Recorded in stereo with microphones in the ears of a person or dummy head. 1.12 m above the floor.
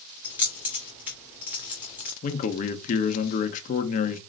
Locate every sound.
0.2 s keys jangling: 10° right (ahead or behind), 1.3 m
2.2 s a man speaking: 40° left (ahead or behind), 0.8 m